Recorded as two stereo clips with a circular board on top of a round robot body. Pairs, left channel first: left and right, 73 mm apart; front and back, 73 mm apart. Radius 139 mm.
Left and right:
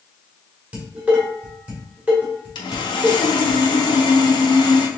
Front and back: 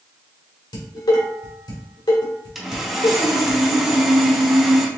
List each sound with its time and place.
0.7 s dishes clattering: 20° right, 1.6 m
2.5 s sawing: 95° left, 0.7 m